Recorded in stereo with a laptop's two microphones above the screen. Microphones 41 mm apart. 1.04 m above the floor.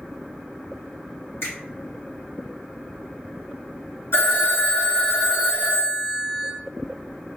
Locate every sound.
1.4 s a finger snap: 75° left (ahead or behind), 1.6 m
4.1 s a phone ringing: 75° left (ahead or behind), 1.6 m